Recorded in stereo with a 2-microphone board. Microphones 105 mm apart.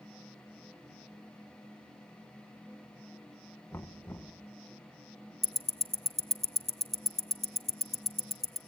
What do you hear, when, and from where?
3.7 s knocking: 20° left (ahead or behind), 1.0 m
5.4 s ticking: 85° right, 0.8 m